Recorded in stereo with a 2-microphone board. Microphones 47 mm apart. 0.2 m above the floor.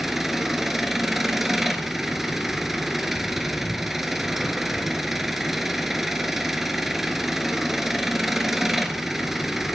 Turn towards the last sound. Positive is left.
turn(degrees=-5)  # may be behind; listen again after turning